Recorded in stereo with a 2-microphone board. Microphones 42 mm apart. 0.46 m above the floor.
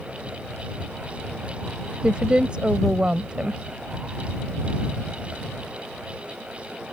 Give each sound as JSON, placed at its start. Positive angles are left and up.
{"t": 2.0, "sound": "a woman speaking", "side_deg": -25}